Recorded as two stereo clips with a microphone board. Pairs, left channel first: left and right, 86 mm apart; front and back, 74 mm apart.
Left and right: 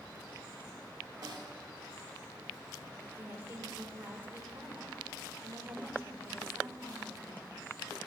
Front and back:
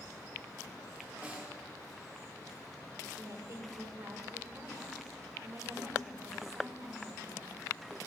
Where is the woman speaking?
150° right, 1.8 m.